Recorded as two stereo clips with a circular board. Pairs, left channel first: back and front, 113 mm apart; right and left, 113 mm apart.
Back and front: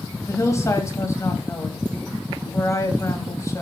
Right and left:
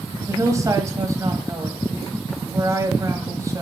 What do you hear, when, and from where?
0.3 s a woman speaking: 135° left, 1.8 m